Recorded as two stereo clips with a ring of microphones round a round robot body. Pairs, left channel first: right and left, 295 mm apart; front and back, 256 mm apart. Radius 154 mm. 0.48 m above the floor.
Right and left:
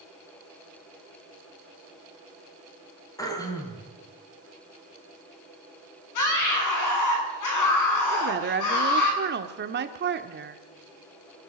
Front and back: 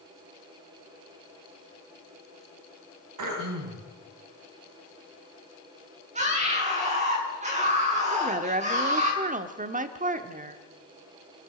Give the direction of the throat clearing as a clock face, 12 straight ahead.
6 o'clock.